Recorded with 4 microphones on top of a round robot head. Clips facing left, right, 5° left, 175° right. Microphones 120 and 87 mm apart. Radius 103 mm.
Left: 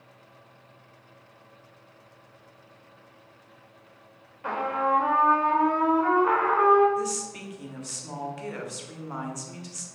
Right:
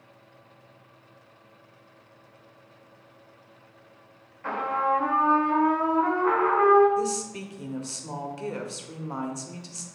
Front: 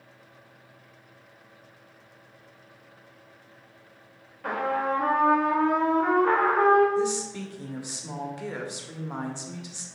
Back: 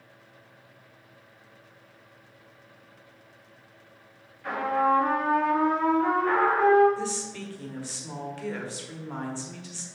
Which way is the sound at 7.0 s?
55° right.